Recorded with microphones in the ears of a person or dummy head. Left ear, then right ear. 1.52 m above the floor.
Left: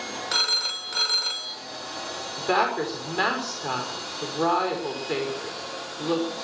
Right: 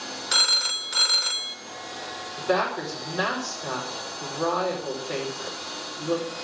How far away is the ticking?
I don't hear ticking.